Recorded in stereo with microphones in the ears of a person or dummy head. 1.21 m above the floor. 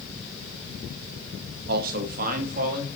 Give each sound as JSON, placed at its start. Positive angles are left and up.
{"t": 1.7, "sound": "a man speaking", "side_deg": -55, "distance_m": 0.9}